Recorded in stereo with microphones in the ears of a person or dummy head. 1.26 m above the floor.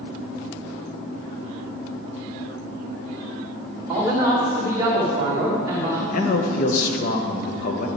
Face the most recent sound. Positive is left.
turn(degrees=55)  # may be behind; listen again after turning